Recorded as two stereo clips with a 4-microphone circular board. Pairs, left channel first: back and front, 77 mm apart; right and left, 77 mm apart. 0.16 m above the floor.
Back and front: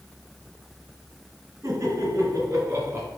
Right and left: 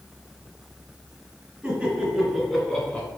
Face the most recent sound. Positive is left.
turn(degrees=-30)